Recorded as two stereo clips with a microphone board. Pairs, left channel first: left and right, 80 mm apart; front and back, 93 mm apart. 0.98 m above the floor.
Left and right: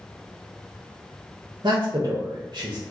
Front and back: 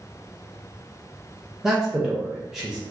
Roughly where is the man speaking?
Right.